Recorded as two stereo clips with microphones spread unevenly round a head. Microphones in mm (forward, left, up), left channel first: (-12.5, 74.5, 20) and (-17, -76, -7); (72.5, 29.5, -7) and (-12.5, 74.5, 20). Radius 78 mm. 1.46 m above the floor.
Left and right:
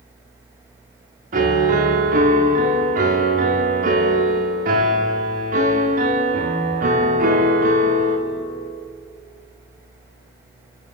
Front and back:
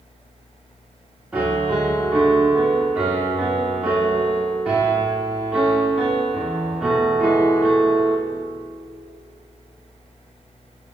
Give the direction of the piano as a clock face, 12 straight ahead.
4 o'clock.